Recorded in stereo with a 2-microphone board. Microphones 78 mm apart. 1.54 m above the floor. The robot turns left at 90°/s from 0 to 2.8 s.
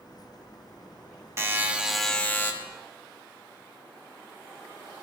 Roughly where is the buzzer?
Behind right.